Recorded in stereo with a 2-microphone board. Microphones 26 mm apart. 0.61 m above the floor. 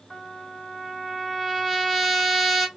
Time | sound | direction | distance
0.1 | a trumpet | centre (ahead or behind) | 2.5 m